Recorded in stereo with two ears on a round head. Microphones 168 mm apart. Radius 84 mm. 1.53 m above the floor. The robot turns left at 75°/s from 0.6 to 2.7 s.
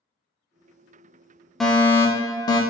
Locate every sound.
1.6 s a fire alarm: centre (ahead or behind), 0.5 m; by 2.6 s 20° left (ahead or behind), 0.5 m